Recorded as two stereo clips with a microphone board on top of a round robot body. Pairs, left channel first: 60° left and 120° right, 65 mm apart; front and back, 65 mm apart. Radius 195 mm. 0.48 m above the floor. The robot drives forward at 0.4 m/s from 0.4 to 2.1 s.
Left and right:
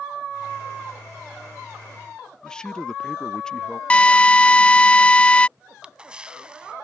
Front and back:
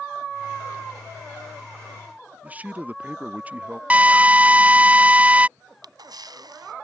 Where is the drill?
125° left.